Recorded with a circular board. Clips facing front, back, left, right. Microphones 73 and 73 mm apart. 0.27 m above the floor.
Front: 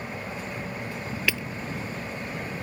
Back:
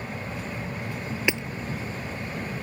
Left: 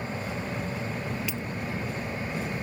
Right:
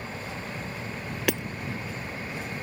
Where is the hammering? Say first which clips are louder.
Back 2 dB, right 8 dB; 110° right.